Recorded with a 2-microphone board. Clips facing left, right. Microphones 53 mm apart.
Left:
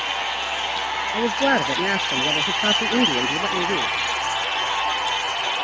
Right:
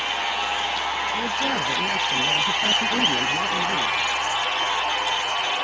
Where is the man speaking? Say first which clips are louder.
Left 5 dB; 70° left (ahead or behind).